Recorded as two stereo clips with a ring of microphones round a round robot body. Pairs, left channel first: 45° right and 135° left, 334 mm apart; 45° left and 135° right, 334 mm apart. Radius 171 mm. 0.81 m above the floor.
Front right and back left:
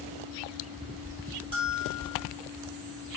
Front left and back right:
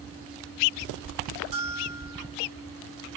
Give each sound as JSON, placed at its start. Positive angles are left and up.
{"t": 1.5, "sound": "a bell", "azimuth_deg": -150, "distance_m": 5.0}